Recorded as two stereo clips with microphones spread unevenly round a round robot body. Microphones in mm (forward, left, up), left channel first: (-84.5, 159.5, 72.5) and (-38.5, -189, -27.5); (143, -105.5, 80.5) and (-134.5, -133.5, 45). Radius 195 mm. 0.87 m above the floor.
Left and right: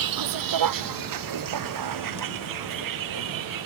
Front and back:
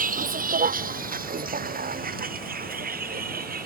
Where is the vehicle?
110° right; by 3.7 s 115° right.